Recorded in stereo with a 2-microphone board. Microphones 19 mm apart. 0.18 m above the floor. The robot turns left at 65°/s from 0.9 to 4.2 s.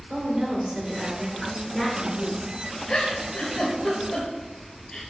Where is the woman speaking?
130° right, 3 m; by 2.5 s 125° left, 3 m.